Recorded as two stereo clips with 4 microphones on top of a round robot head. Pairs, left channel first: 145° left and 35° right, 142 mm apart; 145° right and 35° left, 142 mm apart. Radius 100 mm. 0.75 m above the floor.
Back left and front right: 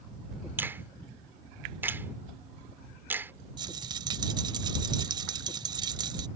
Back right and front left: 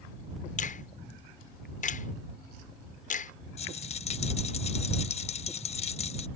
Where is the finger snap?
110° right.